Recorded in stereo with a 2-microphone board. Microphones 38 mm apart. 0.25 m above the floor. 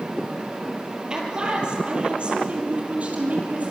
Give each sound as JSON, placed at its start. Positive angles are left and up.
{"t": 1.1, "sound": "a man speaking", "side_deg": -20, "distance_m": 5.5}